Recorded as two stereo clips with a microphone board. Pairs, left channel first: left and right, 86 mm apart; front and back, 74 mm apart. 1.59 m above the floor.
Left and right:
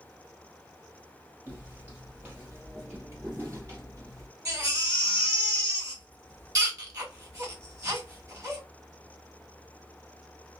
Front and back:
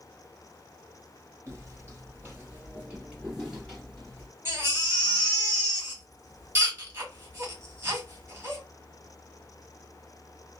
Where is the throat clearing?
No throat clearing in this recording.